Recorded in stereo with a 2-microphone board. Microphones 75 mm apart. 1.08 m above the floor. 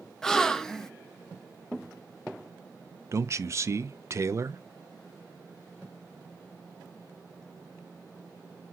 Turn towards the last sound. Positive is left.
turn(degrees=-40)  # may be behind; listen again after turning